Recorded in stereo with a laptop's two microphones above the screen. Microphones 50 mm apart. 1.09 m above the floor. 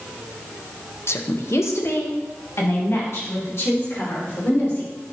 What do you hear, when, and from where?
1.1 s a woman speaking: 60° left (ahead or behind), 0.7 m; by 4.9 s 55° left (ahead or behind), 4 m